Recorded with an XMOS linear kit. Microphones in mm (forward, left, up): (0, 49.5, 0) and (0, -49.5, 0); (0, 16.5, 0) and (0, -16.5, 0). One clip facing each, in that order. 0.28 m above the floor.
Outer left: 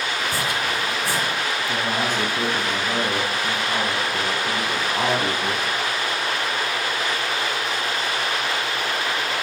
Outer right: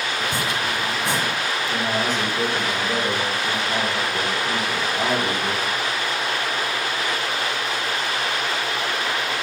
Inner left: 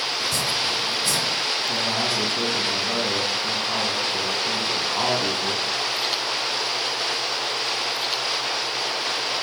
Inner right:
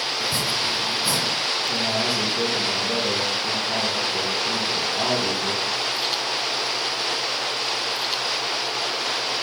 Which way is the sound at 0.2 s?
20° right (ahead or behind).